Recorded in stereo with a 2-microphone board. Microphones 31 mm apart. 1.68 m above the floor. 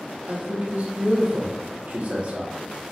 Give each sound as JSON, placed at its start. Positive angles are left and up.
{"t": 0.3, "sound": "a man speaking", "side_deg": -55, "distance_m": 1.1}